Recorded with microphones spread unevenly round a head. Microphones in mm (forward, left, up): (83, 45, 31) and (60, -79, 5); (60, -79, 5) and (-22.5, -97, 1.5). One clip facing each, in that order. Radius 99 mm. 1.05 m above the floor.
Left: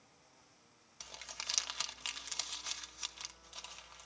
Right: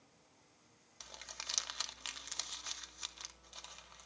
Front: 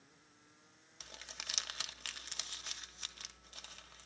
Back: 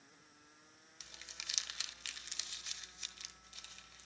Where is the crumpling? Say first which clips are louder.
Left 1 dB, front 4 dB; 5° left, 1.0 m.